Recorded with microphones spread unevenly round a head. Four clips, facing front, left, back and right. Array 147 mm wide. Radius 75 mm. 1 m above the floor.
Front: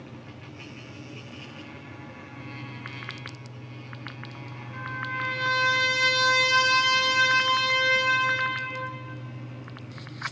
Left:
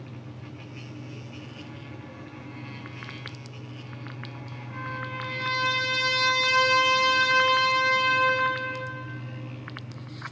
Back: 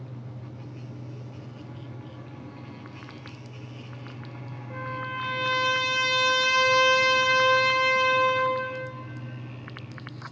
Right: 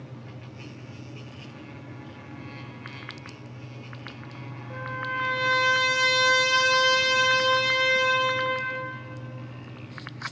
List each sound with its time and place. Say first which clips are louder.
4.7 s a trumpet: right 3 dB, back 1 dB; 135° right, 3 m